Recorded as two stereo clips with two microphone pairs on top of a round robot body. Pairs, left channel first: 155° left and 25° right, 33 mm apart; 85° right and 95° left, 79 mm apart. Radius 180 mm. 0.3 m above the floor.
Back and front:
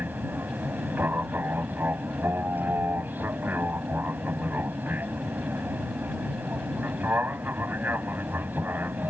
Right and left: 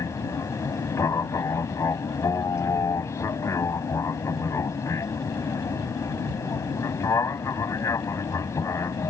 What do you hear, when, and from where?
0.0 s an aircraft: 40° right